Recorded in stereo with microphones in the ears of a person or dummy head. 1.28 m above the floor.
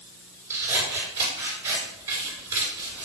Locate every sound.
0.5 s scissors: 15° right (ahead or behind), 4.5 m